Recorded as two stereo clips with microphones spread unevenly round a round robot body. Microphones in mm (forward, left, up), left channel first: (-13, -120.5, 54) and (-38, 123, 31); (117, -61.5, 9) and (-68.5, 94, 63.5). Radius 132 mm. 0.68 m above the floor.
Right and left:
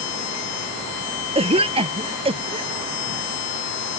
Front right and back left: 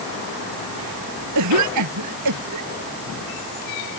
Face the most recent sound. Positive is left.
turn(degrees=165)